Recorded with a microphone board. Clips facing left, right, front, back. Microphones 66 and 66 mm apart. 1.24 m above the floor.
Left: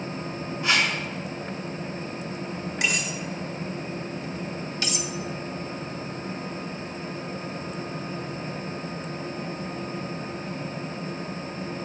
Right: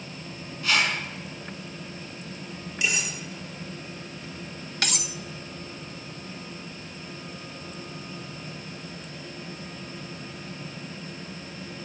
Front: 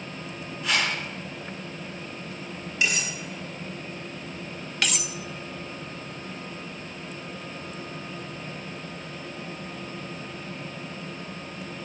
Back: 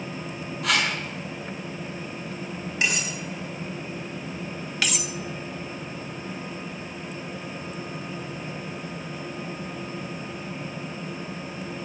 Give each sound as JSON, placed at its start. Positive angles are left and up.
{"t": 0.6, "sound": "a whoosh", "azimuth_deg": 155, "distance_m": 6.0}
{"t": 2.8, "sound": "cutlery clinking", "azimuth_deg": 135, "distance_m": 5.5}
{"t": 4.8, "sound": "cutlery clinking", "azimuth_deg": -90, "distance_m": 0.6}